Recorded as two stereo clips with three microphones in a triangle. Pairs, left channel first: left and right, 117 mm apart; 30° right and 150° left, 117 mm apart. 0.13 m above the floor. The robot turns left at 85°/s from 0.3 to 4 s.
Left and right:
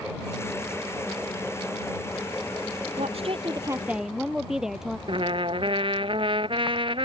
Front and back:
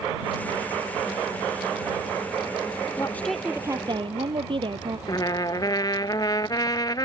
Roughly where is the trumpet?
Right.